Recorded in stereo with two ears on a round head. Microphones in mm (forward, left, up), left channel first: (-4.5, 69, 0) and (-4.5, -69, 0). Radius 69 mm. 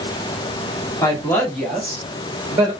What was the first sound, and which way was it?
A woman speaking, 20° left (ahead or behind).